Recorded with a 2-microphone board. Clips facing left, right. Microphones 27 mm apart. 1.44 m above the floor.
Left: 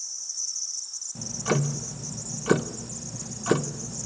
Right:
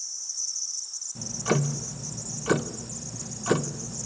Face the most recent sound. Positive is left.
turn(degrees=5)  # may be behind; listen again after turning